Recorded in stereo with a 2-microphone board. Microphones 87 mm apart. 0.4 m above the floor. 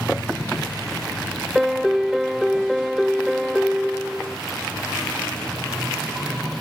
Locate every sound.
1.6 s a piano: 5° right (ahead or behind)